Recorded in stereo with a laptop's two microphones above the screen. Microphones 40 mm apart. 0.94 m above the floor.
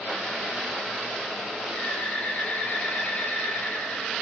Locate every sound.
1.7 s a bird: 40° left (ahead or behind), 3 m